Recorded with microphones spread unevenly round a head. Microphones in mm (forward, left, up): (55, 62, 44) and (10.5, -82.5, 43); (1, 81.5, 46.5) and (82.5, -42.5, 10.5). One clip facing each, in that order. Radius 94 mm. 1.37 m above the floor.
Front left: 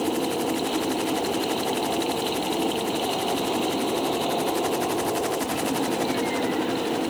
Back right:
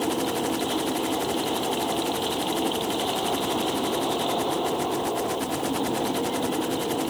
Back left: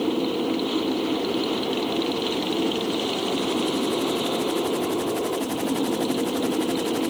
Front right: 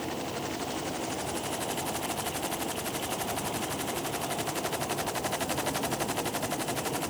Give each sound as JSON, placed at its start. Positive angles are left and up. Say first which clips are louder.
{"t": 0.0, "sound": "a machine running", "louder": "front left 1 dB, back left 11 dB", "azimuth_deg": 155}